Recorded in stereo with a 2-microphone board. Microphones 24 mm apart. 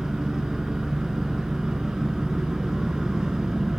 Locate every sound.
0.0 s an engine running: 25° right (ahead or behind), 6 m